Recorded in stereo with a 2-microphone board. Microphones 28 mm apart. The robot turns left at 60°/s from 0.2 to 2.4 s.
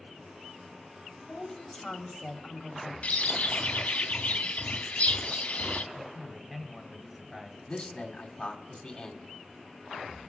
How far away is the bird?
About 0.7 m.